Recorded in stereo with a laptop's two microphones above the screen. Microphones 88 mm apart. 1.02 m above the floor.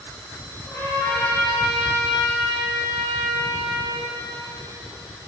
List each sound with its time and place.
0.7 s a trumpet: 25° left (ahead or behind), 2.5 m